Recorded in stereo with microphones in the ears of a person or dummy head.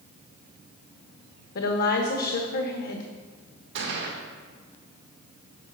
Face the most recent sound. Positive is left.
turn(degrees=-65)  # may be behind; listen again after turning